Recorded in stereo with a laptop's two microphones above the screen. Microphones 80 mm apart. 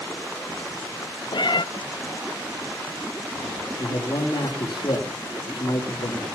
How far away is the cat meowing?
About 0.6 m.